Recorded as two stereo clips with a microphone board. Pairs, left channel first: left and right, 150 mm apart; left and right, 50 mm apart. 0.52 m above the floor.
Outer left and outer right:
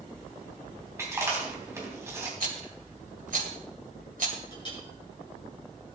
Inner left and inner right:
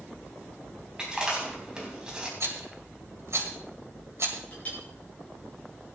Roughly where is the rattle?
Right.